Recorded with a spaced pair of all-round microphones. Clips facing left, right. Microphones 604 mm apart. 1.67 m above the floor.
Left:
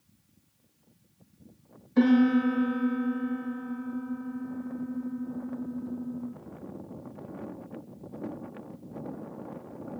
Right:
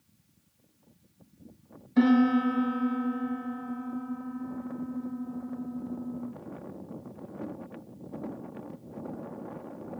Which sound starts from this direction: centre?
A piano, at 2.0 s.